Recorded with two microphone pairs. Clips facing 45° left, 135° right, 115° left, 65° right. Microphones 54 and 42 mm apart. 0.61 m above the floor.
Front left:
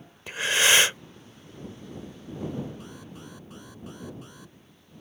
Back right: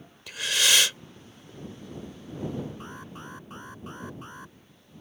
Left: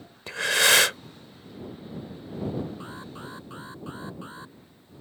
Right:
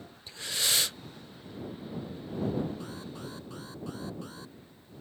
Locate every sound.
0.3 s breathing: 105° left
2.8 s an alarm: 175° left